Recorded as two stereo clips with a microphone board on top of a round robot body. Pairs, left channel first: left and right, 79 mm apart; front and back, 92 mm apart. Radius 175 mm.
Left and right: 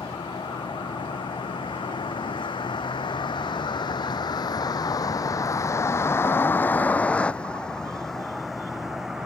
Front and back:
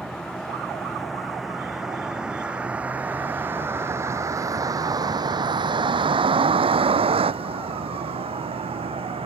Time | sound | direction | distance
0.0 | a vehicle | 85° left | ?